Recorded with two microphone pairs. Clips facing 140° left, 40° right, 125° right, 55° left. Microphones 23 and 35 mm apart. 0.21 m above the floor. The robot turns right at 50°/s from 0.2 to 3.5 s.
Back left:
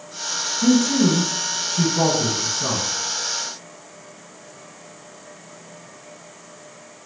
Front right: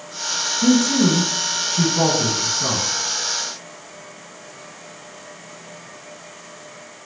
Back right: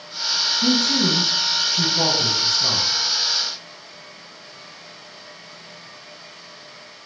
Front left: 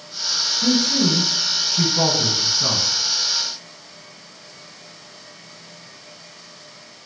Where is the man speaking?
100° right, 1.9 m; by 2.9 s 15° left, 1.9 m.